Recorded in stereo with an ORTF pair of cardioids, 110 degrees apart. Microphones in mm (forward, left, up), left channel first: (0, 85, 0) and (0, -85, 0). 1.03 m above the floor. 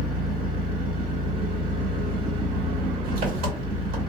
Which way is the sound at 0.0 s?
65° right.